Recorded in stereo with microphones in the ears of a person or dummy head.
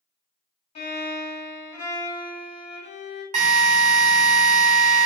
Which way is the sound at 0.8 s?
35° left (ahead or behind).